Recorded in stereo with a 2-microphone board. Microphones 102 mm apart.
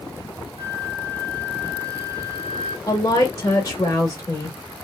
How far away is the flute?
About 1.9 m.